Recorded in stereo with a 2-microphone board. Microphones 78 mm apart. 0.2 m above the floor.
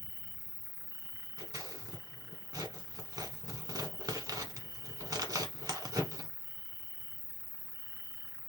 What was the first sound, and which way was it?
An insect, 60° right (ahead or behind).